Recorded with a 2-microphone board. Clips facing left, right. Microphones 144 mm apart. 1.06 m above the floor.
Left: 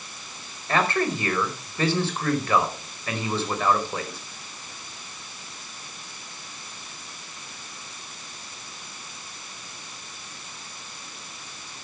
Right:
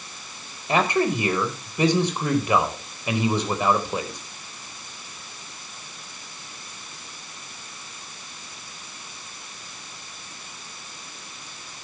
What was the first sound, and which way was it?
A man speaking, 15° right (ahead or behind).